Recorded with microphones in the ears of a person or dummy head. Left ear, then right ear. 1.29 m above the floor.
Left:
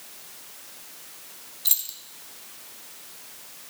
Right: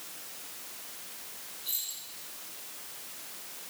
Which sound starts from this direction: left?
Keys jangling, at 1.6 s.